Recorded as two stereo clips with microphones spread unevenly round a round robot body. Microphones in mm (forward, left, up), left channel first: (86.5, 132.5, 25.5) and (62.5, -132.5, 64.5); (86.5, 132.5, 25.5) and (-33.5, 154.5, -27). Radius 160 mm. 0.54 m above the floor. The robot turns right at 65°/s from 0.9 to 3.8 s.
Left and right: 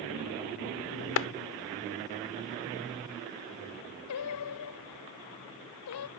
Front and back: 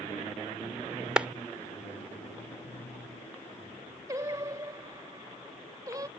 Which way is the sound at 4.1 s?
110° left.